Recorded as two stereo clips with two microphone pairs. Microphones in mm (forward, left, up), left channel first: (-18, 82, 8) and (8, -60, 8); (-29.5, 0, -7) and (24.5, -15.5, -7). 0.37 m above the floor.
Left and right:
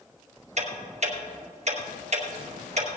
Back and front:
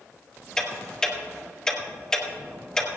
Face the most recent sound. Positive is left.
turn(degrees=-115)